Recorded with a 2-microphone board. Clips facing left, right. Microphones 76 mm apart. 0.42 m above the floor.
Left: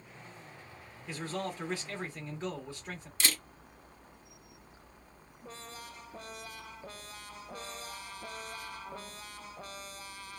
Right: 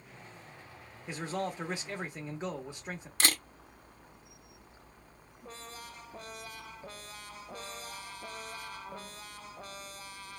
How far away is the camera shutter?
About 0.8 m.